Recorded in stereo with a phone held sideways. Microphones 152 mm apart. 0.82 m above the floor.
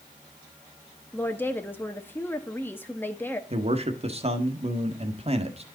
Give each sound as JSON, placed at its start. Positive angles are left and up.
{"t": 1.1, "sound": "a woman speaking", "side_deg": 15, "distance_m": 1.0}
{"t": 3.5, "sound": "a man speaking", "side_deg": -45, "distance_m": 1.6}